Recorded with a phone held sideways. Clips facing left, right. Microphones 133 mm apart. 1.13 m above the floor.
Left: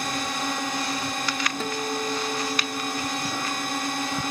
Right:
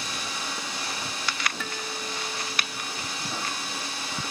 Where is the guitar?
35° left (ahead or behind).